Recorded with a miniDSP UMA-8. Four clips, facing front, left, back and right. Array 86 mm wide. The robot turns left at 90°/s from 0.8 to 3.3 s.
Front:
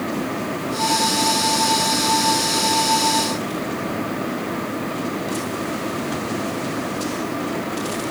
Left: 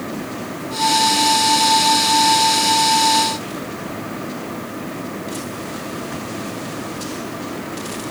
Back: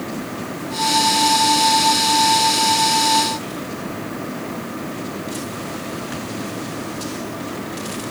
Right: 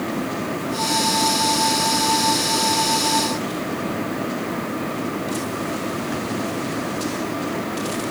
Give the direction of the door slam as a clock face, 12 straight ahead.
No door slam in this recording.